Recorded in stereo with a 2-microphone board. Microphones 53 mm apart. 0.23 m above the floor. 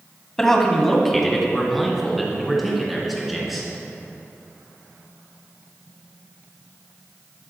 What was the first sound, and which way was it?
A man speaking, 10° left (ahead or behind).